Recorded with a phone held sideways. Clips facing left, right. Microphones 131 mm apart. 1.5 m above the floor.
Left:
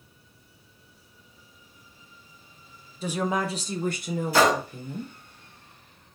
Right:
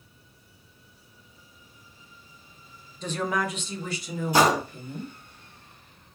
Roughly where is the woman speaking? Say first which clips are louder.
Left 1 dB; centre.